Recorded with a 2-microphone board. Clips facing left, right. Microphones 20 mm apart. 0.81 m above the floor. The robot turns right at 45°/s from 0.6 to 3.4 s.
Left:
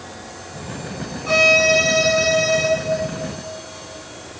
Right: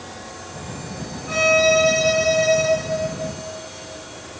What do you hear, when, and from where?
1.3 s a violin: 85° left, 1.2 m; by 2.7 s 150° left, 1.2 m